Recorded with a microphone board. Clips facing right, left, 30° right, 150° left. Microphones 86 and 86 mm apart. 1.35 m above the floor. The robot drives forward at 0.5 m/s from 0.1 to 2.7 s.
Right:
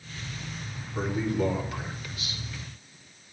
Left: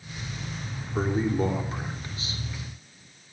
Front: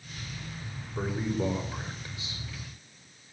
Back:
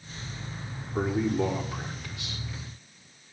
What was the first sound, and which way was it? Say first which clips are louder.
A man speaking: left 2 dB, back 5 dB; 145° left.